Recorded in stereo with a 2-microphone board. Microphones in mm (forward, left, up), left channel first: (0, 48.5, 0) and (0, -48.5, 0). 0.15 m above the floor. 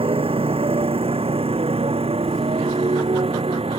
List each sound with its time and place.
0.0 s a motorcycle: 75° right (ahead or behind); by 3.8 s 80° right